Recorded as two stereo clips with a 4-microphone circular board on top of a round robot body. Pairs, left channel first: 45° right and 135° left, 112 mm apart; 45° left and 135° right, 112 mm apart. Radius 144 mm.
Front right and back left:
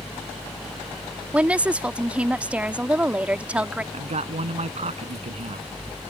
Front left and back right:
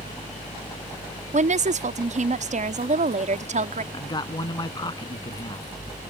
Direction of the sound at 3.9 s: 105° left.